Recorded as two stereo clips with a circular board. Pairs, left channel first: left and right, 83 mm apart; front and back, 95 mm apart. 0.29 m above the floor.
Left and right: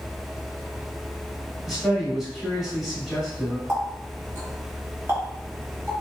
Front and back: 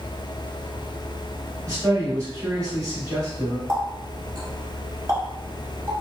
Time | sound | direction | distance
1.7 | a man speaking | 175° right | 1.4 m
3.7 | a running tap | 145° right | 1.1 m